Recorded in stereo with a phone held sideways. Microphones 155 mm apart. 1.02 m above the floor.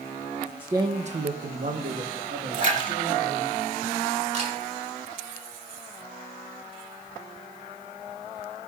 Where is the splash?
55° right (ahead or behind), 2.5 m.